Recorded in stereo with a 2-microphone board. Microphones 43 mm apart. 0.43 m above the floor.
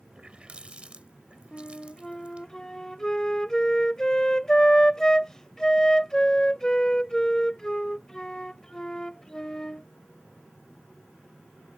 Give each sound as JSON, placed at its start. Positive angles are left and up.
{"t": 0.1, "sound": "a running tap", "side_deg": -30}
{"t": 1.5, "sound": "a flute", "side_deg": 15}